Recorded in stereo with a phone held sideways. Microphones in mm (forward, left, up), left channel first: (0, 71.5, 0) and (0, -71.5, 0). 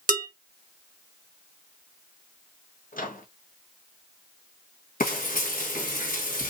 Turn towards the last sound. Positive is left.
turn(degrees=75)  # may be behind; listen again after turning